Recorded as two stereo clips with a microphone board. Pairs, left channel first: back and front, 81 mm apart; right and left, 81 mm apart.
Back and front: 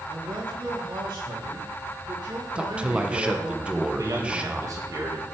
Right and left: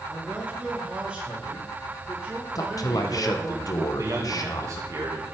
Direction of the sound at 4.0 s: 45° left.